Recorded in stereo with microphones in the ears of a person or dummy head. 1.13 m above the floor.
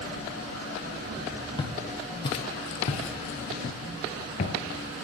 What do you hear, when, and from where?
1.6 s footsteps: 25° left (ahead or behind), 1.8 m